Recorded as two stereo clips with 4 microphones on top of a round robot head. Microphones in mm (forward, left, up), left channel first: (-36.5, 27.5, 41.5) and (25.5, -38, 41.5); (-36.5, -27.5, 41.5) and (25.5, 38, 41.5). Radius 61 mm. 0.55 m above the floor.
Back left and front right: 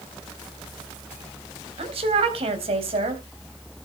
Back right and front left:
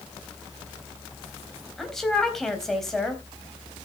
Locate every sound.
1.8 s a woman speaking: 45° right, 3.5 m